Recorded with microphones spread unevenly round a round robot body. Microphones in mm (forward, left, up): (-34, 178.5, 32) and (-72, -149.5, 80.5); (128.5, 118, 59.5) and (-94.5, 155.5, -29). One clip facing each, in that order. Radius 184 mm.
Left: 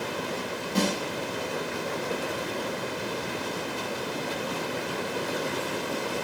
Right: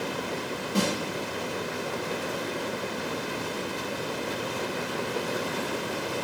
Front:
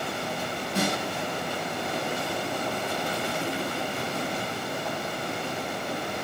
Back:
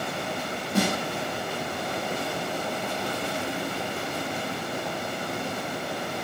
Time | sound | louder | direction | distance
0.8 | a snare drum | left 1 dB, back 3 dB | straight behind | 1.2 m